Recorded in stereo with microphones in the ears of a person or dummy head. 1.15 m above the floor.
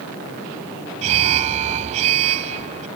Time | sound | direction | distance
1.0 | an alarm | 35° right (ahead or behind) | ?